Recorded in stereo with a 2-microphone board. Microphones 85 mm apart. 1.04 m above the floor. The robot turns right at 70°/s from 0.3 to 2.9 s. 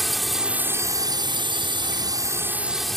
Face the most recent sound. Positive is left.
turn(degrees=5)